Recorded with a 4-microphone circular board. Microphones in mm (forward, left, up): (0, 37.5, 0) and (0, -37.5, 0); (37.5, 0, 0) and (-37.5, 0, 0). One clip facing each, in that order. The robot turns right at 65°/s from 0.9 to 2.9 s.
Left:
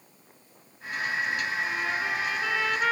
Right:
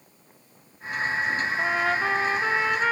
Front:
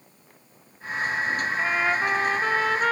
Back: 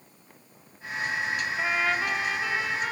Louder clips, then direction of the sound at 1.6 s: Right 5 dB, front 2 dB; 90° right.